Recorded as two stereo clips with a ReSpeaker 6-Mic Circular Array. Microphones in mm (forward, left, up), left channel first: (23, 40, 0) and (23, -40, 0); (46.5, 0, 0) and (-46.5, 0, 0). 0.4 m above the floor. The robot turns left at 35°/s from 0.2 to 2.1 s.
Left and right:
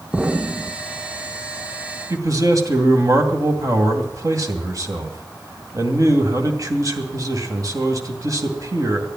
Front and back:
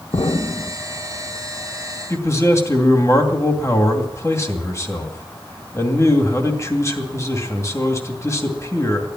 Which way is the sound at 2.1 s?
50° right.